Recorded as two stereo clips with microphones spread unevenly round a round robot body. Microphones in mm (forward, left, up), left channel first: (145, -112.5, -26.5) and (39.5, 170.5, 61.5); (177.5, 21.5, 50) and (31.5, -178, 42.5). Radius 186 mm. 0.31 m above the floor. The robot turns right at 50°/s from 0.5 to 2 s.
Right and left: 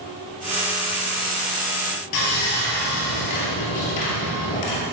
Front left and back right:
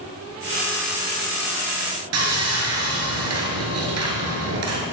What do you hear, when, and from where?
2.1 s sawing: 105° right, 1.5 m